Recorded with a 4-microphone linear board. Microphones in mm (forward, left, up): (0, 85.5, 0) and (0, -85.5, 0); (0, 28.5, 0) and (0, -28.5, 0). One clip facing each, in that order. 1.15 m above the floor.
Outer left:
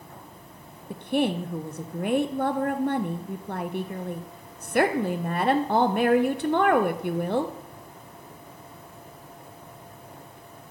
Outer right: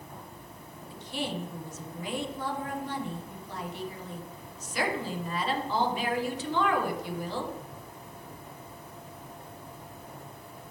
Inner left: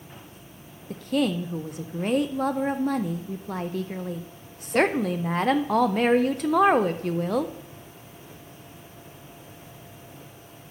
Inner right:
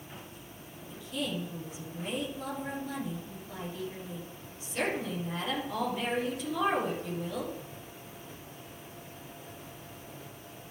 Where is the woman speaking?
60° left (ahead or behind), 0.5 m.